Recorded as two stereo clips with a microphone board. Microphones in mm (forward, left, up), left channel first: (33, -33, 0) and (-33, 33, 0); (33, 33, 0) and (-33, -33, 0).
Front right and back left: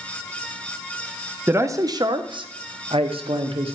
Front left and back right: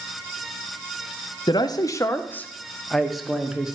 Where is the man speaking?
75° left, 0.8 m; by 3.8 s 145° left, 1.4 m.